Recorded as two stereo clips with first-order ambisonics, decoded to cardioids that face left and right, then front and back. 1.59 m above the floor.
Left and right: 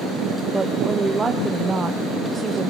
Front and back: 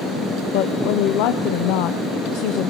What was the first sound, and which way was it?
A woman speaking, 10° right.